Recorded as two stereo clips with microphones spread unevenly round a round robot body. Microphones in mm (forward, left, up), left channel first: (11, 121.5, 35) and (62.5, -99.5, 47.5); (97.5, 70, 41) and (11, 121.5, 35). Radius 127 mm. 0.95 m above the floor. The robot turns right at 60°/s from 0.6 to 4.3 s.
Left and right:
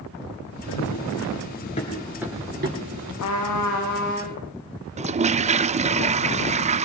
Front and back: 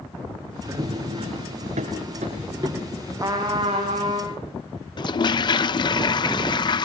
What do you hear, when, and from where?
0.7 s running footsteps: 100° left, 6 m; by 3.1 s 105° right, 8 m
3.2 s a trumpet: 90° left, 8 m; by 4.4 s 155° left, 8 m
5.0 s a toilet flushing: 25° right, 0.9 m